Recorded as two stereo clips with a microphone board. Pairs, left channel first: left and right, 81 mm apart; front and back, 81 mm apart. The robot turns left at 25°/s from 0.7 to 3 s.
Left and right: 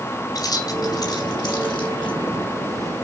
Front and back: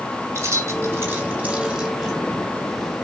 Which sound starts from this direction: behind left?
Keys jangling, at 0.3 s.